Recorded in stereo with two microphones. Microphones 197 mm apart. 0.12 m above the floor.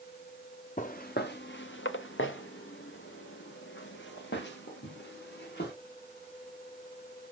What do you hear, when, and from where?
0.8 s footsteps: 40° left (ahead or behind), 0.9 m; by 5.7 s 60° left (ahead or behind), 2.5 m